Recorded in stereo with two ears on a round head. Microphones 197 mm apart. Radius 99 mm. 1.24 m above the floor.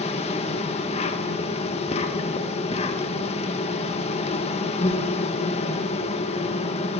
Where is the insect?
30° left (ahead or behind), 1.7 m.